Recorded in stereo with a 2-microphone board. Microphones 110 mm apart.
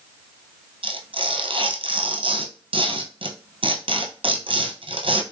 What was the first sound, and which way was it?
Tearing paper, 60° right (ahead or behind).